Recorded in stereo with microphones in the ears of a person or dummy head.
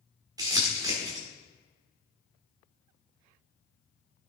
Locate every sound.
0.4 s crumpling: 15° right (ahead or behind), 1.7 m